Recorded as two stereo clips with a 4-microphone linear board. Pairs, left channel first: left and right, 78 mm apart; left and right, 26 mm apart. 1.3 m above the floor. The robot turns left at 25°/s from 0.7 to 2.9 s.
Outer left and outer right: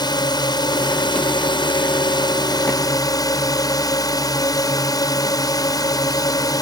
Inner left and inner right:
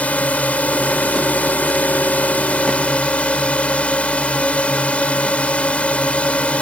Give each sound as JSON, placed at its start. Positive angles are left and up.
{"t": 0.0, "sound": "a drone", "azimuth_deg": 110}